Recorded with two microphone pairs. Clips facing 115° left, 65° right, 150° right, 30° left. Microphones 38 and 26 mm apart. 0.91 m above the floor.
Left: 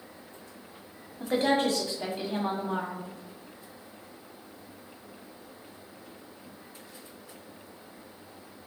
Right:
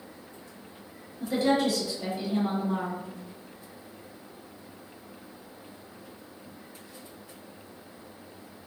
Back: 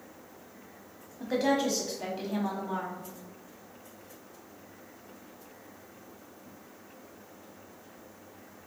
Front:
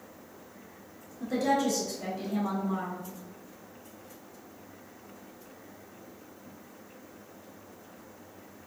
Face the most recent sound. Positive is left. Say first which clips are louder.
# even, even
turn(degrees=155)